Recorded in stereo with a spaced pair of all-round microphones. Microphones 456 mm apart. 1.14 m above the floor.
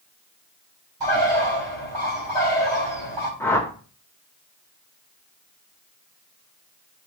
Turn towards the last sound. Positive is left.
turn(degrees=5)  # may be behind; listen again after turning